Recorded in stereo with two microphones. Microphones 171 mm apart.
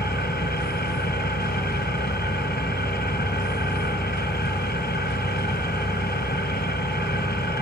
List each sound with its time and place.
0.0 s an engine running: 80° left, 1.5 m